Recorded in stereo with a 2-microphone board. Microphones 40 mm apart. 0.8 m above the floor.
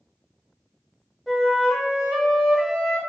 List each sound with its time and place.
1.3 s a flute: 5° left (ahead or behind), 0.7 m